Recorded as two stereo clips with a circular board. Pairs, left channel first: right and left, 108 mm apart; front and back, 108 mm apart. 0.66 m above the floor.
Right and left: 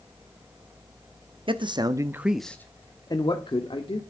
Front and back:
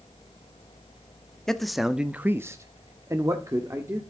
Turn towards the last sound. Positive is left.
turn(degrees=-120)